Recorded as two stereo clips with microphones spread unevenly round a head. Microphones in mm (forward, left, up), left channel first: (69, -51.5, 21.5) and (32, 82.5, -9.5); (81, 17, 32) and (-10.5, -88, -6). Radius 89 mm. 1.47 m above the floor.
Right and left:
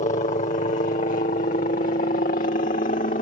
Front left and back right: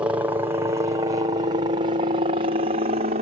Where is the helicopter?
75° right; by 3.2 s 120° right.